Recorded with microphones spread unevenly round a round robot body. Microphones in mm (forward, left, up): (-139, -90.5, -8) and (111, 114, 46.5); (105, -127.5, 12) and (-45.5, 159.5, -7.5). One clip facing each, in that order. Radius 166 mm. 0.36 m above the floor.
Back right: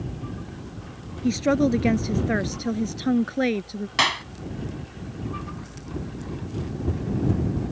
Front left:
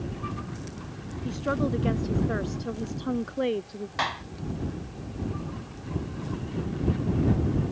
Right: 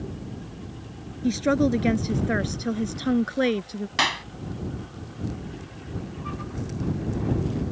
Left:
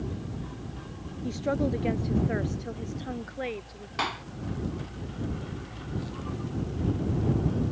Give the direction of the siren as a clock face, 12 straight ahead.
No siren in this recording.